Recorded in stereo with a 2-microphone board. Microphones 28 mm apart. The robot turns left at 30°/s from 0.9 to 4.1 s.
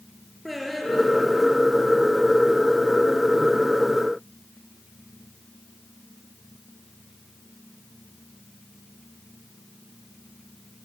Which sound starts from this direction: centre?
Singing, at 0.5 s.